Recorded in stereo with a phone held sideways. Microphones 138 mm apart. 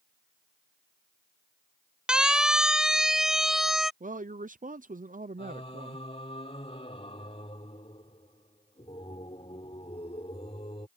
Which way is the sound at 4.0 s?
75° right (ahead or behind).